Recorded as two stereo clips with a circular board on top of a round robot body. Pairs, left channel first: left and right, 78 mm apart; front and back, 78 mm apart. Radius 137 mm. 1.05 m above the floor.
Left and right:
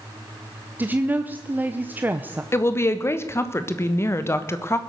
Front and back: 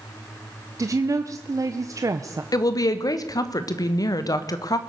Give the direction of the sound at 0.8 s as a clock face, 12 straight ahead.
5 o'clock.